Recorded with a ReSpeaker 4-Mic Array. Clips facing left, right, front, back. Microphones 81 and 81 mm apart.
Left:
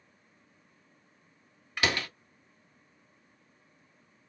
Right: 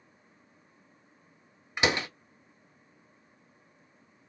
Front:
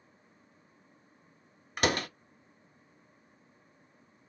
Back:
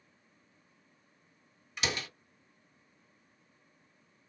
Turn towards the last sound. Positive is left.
turn(degrees=-25)